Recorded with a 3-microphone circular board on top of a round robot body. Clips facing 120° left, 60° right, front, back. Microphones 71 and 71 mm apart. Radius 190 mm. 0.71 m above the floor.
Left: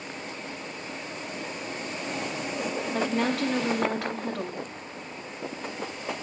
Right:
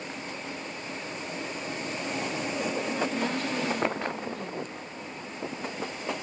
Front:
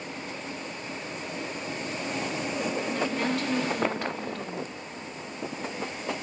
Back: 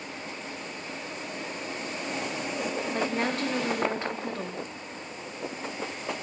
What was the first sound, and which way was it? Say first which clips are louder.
A woman speaking: left 3 dB, back 2 dB; 120° left.